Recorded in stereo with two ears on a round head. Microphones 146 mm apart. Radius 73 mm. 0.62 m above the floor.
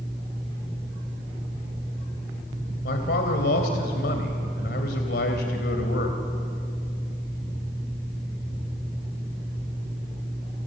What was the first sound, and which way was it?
A man speaking, 70° left (ahead or behind).